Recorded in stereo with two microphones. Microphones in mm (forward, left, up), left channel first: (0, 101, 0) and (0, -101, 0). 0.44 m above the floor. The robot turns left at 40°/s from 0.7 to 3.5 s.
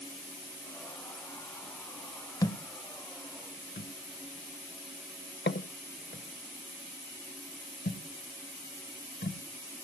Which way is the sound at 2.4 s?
20° left (ahead or behind).